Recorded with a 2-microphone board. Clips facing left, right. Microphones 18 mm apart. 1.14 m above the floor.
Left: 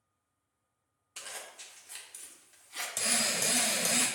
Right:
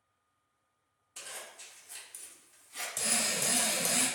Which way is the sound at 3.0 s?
25° left (ahead or behind).